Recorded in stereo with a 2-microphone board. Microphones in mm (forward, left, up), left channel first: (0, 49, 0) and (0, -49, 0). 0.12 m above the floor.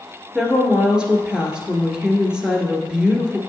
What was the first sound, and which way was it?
A woman speaking, 10° right (ahead or behind).